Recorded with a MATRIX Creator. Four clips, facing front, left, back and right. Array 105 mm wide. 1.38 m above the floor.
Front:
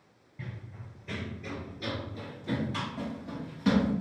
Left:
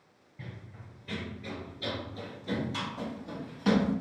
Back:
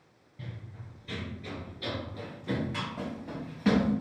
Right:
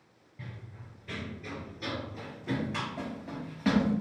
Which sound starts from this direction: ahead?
Running footsteps, at 0.4 s.